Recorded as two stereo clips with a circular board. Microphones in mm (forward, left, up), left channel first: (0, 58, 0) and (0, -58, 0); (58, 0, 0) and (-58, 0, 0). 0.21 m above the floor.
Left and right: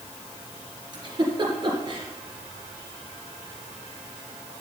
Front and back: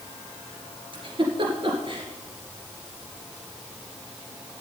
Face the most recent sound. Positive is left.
turn(degrees=-140)